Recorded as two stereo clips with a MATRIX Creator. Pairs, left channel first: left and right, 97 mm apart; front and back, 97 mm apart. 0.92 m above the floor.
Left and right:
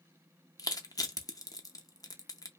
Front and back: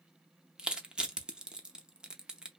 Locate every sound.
0.6 s crushing: 100° left, 0.5 m